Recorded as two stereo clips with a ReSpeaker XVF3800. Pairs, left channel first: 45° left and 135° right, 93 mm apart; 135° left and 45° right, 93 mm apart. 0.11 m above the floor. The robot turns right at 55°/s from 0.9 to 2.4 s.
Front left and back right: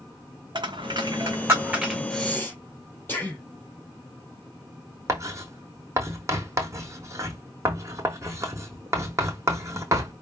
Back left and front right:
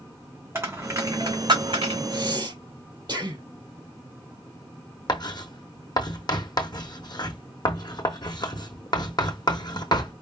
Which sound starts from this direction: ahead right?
Breathing, at 2.1 s.